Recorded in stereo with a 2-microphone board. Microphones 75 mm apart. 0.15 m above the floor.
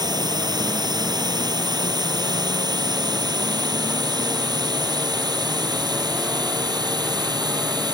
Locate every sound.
0.0 s a drone: 65° right (ahead or behind); by 8.0 s 70° right (ahead or behind)